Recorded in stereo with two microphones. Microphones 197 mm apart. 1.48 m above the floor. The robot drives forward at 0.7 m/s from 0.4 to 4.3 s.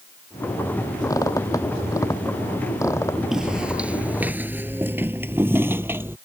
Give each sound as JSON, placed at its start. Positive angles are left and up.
{"t": 1.1, "sound": "a squeak", "side_deg": 15}
{"t": 3.3, "sound": "footsteps", "side_deg": -5}